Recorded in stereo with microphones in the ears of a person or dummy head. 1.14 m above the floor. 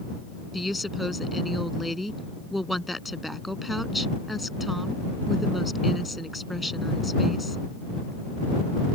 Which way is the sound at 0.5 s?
Centre (ahead or behind).